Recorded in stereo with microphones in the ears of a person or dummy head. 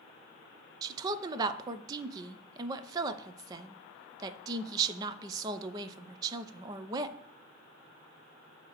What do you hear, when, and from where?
0.8 s a woman speaking: 20° right (ahead or behind), 0.6 m